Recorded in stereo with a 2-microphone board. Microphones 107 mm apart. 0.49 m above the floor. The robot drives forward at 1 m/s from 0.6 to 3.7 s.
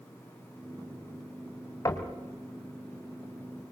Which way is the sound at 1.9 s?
30° left (ahead or behind).